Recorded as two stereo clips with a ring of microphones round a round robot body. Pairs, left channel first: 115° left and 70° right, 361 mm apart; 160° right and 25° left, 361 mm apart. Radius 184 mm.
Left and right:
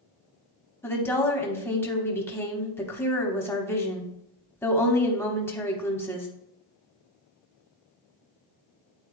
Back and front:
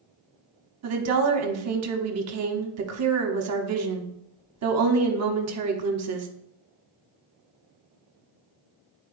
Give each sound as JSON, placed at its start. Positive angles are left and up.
{"t": 0.8, "sound": "a woman speaking", "azimuth_deg": 30, "distance_m": 1.1}